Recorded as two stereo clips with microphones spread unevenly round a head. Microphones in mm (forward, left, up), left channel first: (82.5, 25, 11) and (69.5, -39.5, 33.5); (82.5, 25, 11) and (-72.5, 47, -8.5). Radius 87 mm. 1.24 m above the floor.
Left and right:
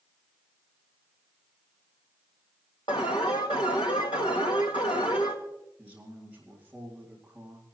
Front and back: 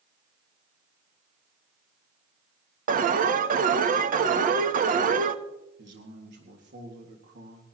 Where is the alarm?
135° left, 0.9 m.